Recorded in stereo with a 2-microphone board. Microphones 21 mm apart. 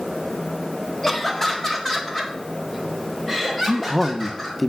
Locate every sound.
1.0 s laughter: 15° left (ahead or behind), 1.3 m
3.7 s a man speaking: 5° left (ahead or behind), 0.6 m